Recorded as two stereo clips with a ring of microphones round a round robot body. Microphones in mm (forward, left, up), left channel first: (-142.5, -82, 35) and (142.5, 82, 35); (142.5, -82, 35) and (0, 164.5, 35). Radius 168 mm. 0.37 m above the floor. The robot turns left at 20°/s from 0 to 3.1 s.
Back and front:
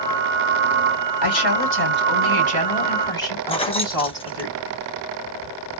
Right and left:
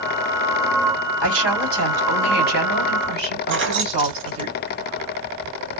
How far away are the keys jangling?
About 0.9 m.